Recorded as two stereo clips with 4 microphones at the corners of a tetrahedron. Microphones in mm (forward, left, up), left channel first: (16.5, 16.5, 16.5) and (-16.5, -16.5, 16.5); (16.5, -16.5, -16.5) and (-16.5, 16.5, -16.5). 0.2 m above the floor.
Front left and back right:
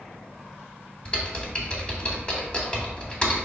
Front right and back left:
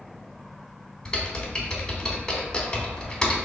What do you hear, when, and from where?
1.1 s typing on a keyboard: 10° left, 0.8 m